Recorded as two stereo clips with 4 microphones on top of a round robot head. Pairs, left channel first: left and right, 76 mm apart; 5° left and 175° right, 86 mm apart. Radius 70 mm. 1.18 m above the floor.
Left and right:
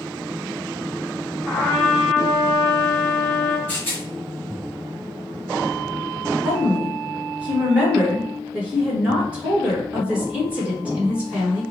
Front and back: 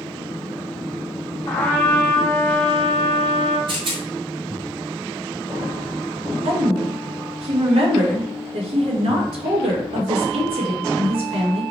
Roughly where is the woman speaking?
Behind.